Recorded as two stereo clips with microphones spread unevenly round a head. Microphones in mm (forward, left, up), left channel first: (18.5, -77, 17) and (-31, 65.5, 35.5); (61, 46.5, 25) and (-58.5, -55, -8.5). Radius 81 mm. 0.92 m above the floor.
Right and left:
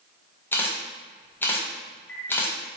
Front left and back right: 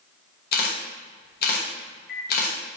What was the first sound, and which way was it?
A camera shutter, 5° left.